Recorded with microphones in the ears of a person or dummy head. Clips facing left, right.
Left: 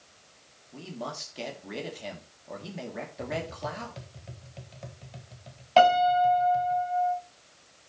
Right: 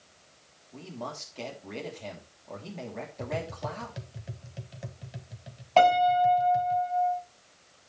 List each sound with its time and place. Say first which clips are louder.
0.7 s a man speaking: left 1 dB; 10° left (ahead or behind), 3 m
3.2 s tapping: even; 10° right (ahead or behind), 1.3 m
5.8 s a piano: left 1 dB; 5° left (ahead or behind), 5 m